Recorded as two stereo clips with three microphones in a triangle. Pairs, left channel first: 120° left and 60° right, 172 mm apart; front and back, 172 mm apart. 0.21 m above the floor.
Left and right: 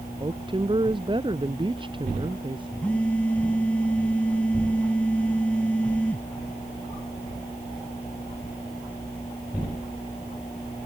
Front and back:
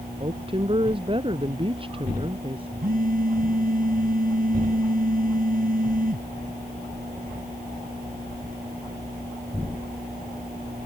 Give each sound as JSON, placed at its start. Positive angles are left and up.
{"t": 0.2, "sound": "a woman speaking", "azimuth_deg": -120}
{"t": 2.8, "sound": "a phone buzzing", "azimuth_deg": -160}